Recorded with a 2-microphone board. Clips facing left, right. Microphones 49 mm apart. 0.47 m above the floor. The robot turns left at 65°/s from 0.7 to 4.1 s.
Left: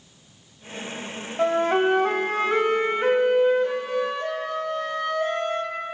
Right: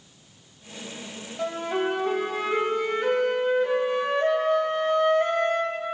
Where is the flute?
140° left, 1.4 m; by 5.8 s 35° right, 1.4 m.